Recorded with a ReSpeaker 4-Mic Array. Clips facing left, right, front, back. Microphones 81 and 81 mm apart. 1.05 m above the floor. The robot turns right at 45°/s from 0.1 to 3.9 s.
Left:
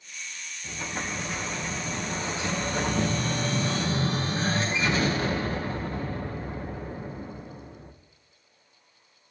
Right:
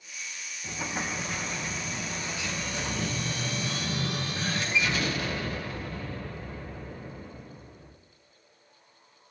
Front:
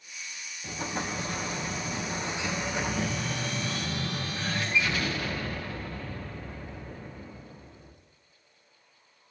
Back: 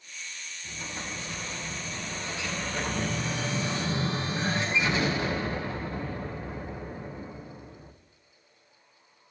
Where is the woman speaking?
I don't hear a woman speaking.